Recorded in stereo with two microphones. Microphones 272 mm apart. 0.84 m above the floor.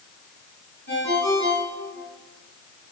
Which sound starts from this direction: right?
A ringtone, at 0.9 s.